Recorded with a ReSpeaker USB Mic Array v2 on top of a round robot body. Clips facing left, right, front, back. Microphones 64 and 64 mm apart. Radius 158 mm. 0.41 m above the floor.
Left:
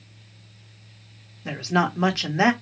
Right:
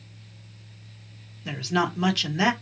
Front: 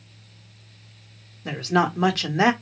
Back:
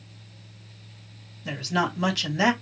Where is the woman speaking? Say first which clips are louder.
Left 2 dB, front 4 dB; 35° left, 1.8 m.